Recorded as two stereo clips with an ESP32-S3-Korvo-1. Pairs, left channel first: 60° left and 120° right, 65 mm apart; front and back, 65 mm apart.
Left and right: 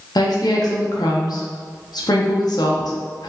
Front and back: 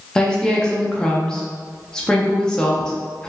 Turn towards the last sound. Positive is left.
turn(degrees=80)